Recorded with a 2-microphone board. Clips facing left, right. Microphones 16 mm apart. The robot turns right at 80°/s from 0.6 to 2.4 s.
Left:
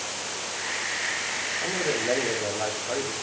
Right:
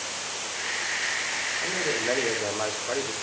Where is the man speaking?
170° left, 2.5 m; by 3.1 s 125° right, 2.5 m.